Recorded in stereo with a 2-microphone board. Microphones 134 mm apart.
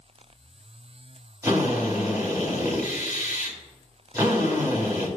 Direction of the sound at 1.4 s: 25° right (ahead or behind).